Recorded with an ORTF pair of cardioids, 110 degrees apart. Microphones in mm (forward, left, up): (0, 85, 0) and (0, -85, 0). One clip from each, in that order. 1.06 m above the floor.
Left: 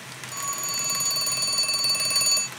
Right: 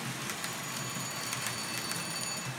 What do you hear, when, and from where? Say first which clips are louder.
0.3 s a phone ringing: left 8 dB; 65° left, 0.6 m